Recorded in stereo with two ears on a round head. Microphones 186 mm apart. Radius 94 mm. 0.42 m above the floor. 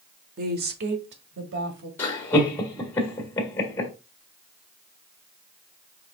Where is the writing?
I don't hear writing.